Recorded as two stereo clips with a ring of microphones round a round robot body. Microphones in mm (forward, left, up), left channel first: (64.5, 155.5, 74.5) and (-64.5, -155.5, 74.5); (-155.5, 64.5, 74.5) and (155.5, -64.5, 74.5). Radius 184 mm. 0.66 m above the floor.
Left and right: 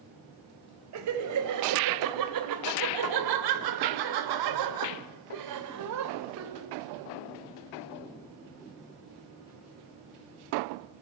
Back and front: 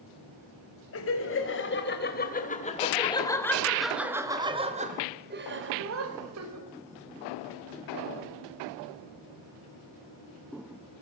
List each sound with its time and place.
0.9 s laughter: 155° right, 4 m; by 6.7 s 65° right, 3 m